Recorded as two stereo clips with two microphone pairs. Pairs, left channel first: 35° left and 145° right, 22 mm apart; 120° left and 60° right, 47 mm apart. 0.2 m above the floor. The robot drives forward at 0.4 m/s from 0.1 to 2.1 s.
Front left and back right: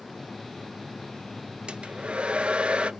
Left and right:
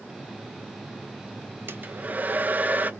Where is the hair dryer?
105° right, 0.6 m; by 2.9 s 120° right, 0.7 m.